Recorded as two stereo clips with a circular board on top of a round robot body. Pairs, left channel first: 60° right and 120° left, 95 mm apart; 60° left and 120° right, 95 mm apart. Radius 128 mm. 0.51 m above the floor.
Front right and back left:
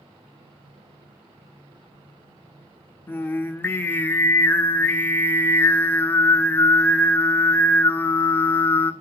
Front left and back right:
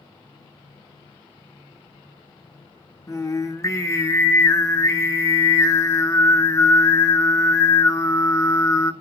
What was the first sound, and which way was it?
Singing, 5° left.